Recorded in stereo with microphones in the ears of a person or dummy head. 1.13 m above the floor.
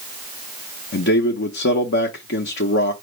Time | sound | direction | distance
0.9 | a man speaking | 60° left (ahead or behind) | 0.7 m